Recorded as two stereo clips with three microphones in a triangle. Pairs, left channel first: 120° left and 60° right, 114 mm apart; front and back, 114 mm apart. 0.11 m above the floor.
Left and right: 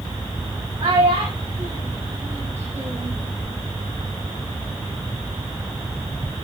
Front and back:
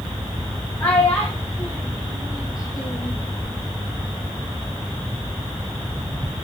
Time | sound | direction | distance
0.8 | a child speaking | 75° right | 6 m